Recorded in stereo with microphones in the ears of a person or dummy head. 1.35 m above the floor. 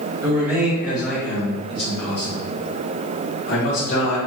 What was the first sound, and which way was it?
A man speaking, 10° right (ahead or behind).